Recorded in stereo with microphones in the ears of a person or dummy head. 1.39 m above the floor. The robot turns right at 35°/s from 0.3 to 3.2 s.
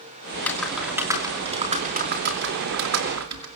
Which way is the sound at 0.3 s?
165° left.